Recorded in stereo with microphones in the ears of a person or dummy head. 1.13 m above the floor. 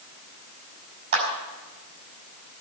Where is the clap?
70° right (ahead or behind), 4.5 m.